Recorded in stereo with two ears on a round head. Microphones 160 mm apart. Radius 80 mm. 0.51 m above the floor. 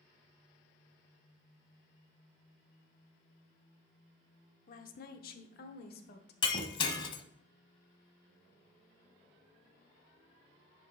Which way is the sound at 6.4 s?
25° left (ahead or behind).